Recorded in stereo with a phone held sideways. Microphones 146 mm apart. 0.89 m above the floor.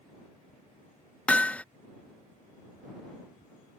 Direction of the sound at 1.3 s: 10° left (ahead or behind).